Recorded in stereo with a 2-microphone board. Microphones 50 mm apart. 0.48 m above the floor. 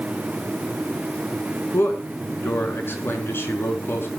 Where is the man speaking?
50° left (ahead or behind), 5 m.